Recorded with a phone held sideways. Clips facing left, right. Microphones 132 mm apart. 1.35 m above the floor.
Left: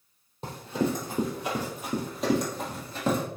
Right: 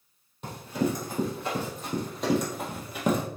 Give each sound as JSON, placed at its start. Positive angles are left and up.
{"t": 0.4, "sound": "running footsteps", "side_deg": 35, "distance_m": 2.0}